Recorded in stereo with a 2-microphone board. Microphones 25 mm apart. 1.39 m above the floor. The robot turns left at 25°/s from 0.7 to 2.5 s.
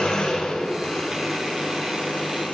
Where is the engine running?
145° left, 5 m; by 2.5 s 100° left, 5 m.